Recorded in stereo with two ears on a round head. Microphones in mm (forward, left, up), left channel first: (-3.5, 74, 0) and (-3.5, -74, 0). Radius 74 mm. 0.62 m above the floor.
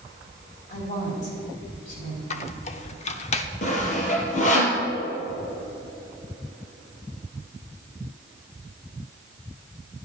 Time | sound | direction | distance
0.7 | a woman speaking | 50° left (ahead or behind) | 4.5 m
2.3 | a squeak | 40° left (ahead or behind) | 0.9 m
3.6 | sawing | 45° left (ahead or behind) | 3 m